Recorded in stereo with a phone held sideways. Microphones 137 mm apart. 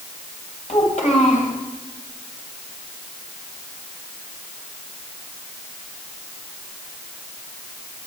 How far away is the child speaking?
About 3 m.